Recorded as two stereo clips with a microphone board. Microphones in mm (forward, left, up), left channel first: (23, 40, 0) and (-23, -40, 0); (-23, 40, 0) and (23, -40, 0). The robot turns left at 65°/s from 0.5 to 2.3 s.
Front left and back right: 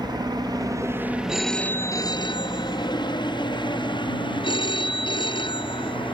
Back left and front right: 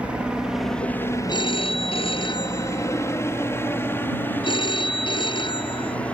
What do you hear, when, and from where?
0.0 s a helicopter: 135° right; by 6.1 s 45° left
1.3 s a phone ringing: 160° left; by 6.0 s 95° left